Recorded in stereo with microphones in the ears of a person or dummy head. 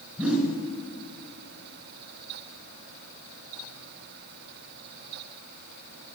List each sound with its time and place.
0.2 s a whoosh: 5° right (ahead or behind), 2.5 m